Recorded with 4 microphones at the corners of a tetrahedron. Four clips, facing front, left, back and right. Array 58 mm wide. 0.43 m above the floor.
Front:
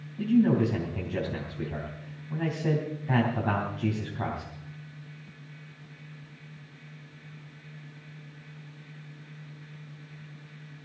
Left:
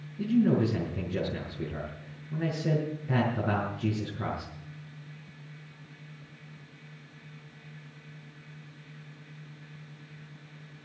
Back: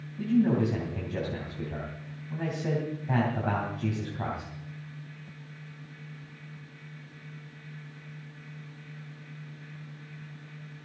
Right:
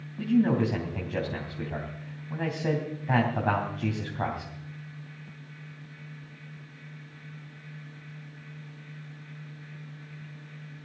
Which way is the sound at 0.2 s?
90° right.